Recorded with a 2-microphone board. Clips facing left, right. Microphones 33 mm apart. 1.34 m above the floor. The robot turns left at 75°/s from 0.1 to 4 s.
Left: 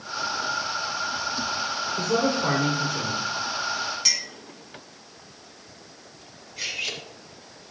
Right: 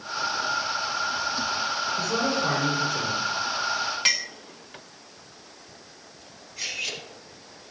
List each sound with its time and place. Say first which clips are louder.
2.0 s a man speaking: left 4 dB; 55° left, 4 m; by 3.2 s 35° right, 4 m
4.0 s a clink: right 6 dB; 40° right (ahead or behind), 1.1 m
6.6 s cutlery clinking: left 1 dB; 10° left (ahead or behind), 3 m